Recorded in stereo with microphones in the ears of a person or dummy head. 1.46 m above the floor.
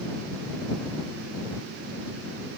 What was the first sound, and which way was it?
Only background noise.